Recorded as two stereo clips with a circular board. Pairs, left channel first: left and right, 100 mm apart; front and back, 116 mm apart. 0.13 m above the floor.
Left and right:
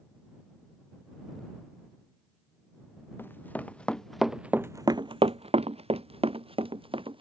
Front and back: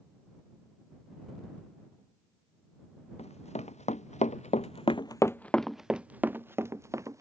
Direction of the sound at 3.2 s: 20° left.